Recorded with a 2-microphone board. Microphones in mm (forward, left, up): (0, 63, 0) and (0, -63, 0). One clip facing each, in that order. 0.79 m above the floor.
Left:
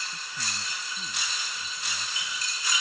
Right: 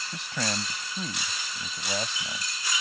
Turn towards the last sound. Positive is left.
turn(degrees=-80)